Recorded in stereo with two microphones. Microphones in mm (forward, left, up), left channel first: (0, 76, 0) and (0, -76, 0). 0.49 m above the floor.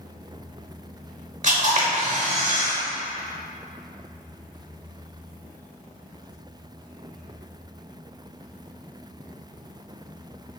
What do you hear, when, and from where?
1.4 s a camera shutter: 55° right (ahead or behind), 0.6 m